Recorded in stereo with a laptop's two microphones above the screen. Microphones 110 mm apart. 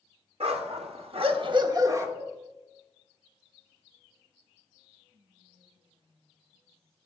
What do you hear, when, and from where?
0.4 s a dog barking: 65° right (ahead or behind), 1.3 m; by 2.1 s 25° right (ahead or behind), 1.0 m
2.2 s dishes clattering: 5° right (ahead or behind), 1.6 m
5.1 s whispering: 60° right (ahead or behind), 2 m